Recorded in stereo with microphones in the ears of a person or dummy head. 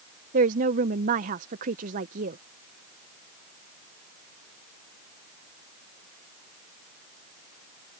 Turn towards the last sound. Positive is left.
turn(degrees=-40)  # may be behind; listen again after turning